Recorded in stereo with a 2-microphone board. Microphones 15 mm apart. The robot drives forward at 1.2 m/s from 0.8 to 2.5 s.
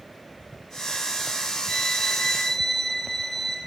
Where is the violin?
40° left (ahead or behind), 0.9 m; by 3.6 s 20° left (ahead or behind), 1.5 m.